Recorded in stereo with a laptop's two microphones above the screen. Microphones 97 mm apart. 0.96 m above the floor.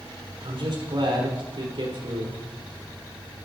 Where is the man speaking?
60° right (ahead or behind), 4 m.